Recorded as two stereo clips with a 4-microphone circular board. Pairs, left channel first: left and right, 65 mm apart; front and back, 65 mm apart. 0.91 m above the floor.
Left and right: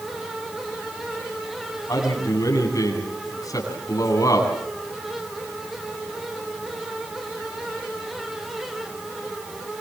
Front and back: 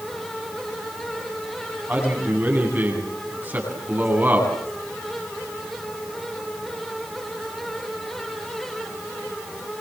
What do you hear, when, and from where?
1.9 s a man speaking: 120° left, 9 m